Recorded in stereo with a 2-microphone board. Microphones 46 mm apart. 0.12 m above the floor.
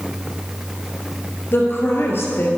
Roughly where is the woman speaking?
Left.